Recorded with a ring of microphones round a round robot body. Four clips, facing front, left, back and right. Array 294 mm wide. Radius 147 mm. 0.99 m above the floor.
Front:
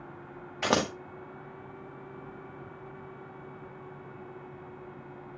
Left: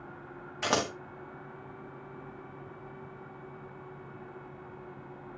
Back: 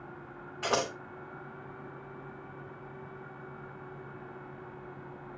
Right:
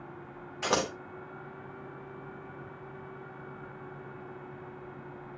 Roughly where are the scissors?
Ahead.